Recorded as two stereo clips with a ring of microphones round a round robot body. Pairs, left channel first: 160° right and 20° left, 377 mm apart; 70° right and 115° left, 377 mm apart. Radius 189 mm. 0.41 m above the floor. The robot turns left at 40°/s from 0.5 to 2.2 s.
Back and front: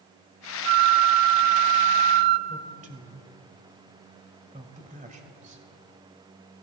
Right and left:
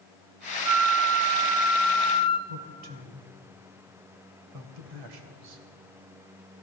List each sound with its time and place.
0.7 s a flute: 70° left, 0.5 m; by 2.4 s 5° left, 0.5 m
2.5 s a man speaking: 90° left, 1.5 m